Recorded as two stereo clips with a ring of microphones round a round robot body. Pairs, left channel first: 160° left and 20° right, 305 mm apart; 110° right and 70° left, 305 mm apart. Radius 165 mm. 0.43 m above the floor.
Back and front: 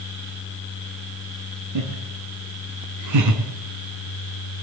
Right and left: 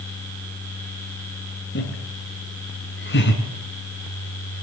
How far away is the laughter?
About 7 m.